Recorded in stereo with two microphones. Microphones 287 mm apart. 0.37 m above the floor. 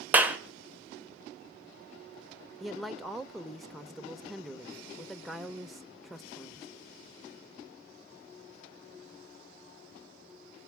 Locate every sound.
0.1 s a clap: 5° right (ahead or behind), 1.2 m
2.6 s a man speaking: centre (ahead or behind), 0.8 m